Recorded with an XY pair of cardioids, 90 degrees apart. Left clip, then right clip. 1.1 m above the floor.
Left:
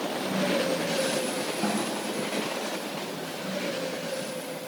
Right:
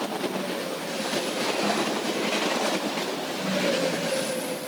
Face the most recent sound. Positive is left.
turn(degrees=25)